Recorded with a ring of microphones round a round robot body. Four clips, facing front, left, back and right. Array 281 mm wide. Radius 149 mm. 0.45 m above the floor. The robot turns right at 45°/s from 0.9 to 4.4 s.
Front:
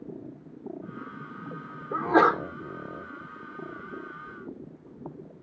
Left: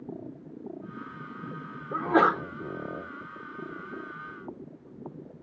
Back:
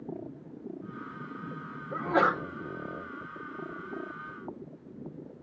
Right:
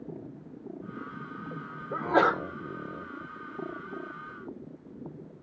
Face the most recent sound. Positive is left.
turn(degrees=145)